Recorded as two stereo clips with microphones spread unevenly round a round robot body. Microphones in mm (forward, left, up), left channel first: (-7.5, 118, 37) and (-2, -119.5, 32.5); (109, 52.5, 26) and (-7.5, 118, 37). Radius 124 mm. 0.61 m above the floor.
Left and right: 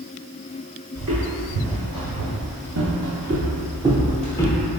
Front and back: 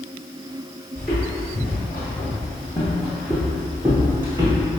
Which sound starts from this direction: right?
Footsteps, at 0.9 s.